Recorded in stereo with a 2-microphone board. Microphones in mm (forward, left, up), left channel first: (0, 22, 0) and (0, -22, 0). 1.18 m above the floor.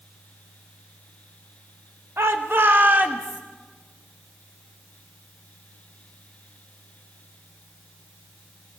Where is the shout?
75° right (ahead or behind), 1.3 m; by 3.4 s 35° right (ahead or behind), 2 m.